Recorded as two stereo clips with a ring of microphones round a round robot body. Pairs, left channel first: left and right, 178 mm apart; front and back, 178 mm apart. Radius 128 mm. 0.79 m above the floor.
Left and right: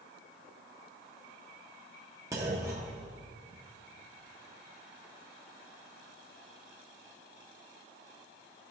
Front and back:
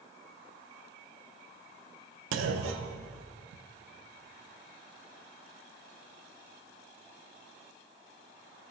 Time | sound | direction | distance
2.3 | a clunk | 170° right | 0.5 m